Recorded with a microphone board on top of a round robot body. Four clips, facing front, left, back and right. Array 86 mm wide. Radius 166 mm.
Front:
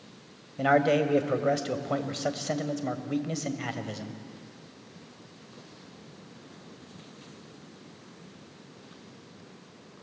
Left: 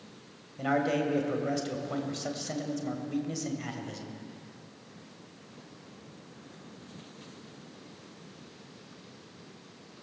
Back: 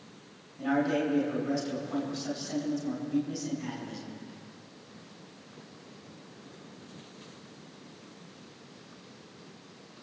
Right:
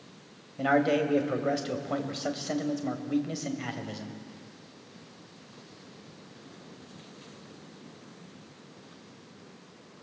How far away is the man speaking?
About 2.5 m.